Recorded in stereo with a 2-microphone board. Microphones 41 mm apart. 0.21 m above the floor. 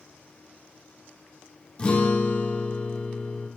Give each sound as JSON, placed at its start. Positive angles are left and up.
{"t": 1.8, "sound": "a guitar", "side_deg": 25, "distance_m": 4.0}